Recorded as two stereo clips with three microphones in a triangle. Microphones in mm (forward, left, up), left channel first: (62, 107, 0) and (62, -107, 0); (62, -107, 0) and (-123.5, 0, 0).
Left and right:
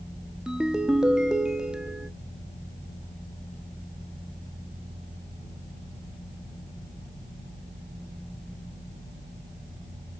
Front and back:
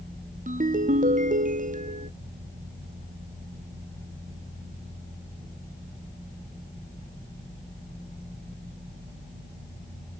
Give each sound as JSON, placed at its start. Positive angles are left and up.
{"t": 0.5, "sound": "a ringtone", "azimuth_deg": -175, "distance_m": 0.6}